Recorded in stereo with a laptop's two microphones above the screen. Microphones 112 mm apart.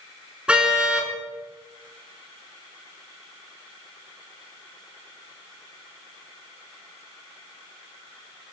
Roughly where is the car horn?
Centre.